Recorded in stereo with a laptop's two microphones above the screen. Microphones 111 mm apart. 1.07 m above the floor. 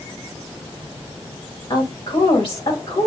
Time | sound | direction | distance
1.7 | a woman speaking | 55° left (ahead or behind) | 1.8 m